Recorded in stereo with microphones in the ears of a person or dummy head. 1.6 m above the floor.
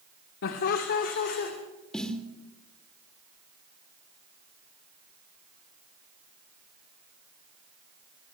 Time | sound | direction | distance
0.4 | laughter | 70° left (ahead or behind) | 1.6 m
1.9 | a snare drum | 5° left (ahead or behind) | 1.5 m